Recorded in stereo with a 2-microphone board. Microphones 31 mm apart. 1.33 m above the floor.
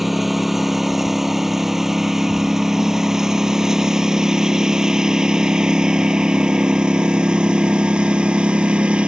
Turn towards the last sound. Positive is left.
turn(degrees=-35)  # may be behind; listen again after turning